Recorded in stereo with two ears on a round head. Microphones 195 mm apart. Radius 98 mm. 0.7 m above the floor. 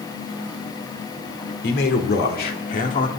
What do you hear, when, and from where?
1.6 s a man speaking: 50° left (ahead or behind), 2.5 m; by 3.1 s 35° left (ahead or behind), 1.8 m